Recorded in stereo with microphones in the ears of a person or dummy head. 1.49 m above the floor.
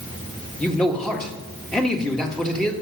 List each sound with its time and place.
0.6 s a man speaking: 5° left (ahead or behind), 1.8 m